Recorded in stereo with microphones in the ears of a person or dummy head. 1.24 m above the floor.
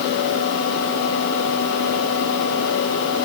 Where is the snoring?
I don't hear snoring.